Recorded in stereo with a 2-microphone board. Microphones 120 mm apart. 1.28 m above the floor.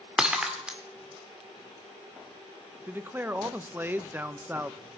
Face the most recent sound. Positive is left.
turn(degrees=-15)  # may be behind; listen again after turning